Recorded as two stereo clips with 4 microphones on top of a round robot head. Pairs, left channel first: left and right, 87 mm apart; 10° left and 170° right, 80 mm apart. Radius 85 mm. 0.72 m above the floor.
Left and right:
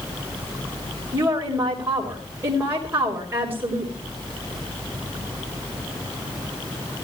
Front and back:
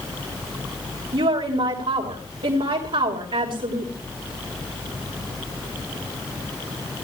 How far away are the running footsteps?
I don't hear running footsteps.